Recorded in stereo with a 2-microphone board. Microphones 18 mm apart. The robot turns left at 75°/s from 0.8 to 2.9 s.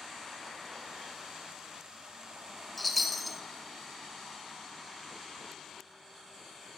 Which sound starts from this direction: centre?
A chime, at 2.8 s.